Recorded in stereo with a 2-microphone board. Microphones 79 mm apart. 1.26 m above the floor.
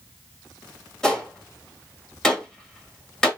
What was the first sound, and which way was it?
A gunshot, 5° left (ahead or behind).